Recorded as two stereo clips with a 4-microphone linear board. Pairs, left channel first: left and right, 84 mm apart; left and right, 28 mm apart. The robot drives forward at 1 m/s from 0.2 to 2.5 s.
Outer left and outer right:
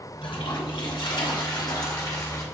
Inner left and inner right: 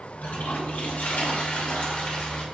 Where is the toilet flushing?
80° left, 1.9 m; by 2.4 s 40° left (ahead or behind), 3 m.